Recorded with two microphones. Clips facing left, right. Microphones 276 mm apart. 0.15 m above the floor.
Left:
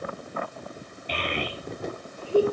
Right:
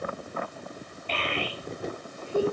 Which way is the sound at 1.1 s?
15° left (ahead or behind).